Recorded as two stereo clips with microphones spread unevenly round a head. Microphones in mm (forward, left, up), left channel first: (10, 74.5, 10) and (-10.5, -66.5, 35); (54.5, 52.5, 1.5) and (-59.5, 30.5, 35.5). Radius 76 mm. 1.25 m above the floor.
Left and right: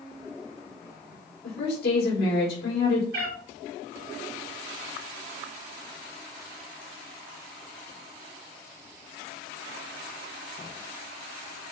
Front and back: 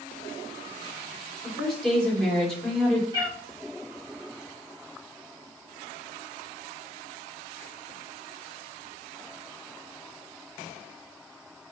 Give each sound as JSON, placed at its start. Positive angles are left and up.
{"t": 1.4, "sound": "a woman speaking", "azimuth_deg": 95, "distance_m": 3.5}
{"t": 3.1, "sound": "a cat meowing", "azimuth_deg": -115, "distance_m": 3.0}